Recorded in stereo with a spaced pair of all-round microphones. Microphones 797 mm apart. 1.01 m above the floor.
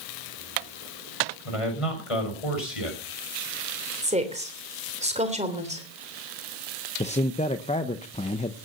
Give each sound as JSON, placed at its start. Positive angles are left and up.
{"t": 1.4, "sound": "a man speaking", "side_deg": 45, "distance_m": 6.0}
{"t": 4.0, "sound": "a woman speaking", "side_deg": -10, "distance_m": 3.0}
{"t": 7.0, "sound": "a man speaking", "side_deg": 10, "distance_m": 0.8}